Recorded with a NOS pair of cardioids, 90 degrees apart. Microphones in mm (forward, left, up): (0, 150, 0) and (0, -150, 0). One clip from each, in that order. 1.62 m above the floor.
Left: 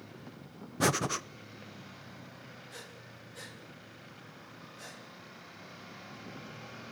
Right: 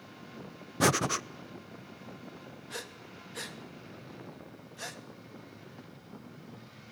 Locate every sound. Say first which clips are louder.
0.8 s breathing: right 3 dB; 15° right, 0.8 m
2.7 s breathing: right 9 dB; 55° right, 3 m